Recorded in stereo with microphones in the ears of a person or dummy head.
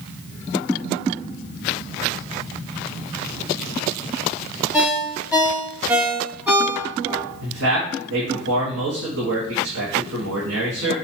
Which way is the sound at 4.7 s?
10° right (ahead or behind).